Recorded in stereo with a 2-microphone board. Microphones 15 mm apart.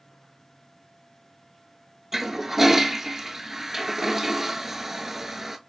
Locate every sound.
2.1 s a toilet flushing: 25° right (ahead or behind), 0.5 m